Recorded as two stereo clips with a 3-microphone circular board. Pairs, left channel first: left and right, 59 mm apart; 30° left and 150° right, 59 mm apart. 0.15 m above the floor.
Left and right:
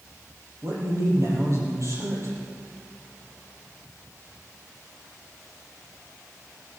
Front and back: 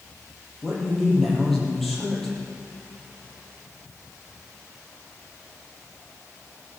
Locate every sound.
0.6 s a man speaking: 55° right, 5.5 m